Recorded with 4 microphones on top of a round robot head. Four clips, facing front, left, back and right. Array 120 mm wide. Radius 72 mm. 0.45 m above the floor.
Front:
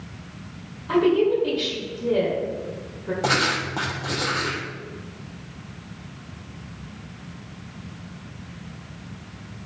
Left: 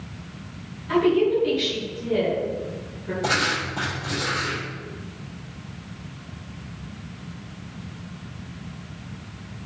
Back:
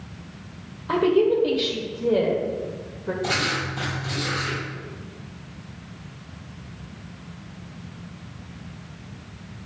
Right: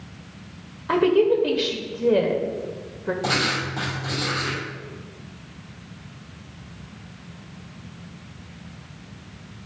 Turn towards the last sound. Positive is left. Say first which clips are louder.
# left 3 dB, front 5 dB
turn(degrees=-5)